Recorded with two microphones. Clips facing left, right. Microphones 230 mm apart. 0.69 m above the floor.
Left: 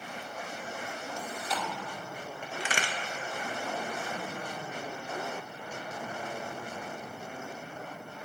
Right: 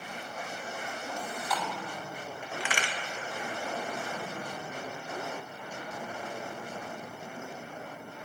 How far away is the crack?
About 0.6 m.